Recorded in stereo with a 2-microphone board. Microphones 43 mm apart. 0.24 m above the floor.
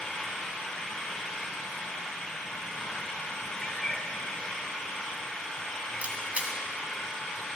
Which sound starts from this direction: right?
A camera shutter, at 6.0 s.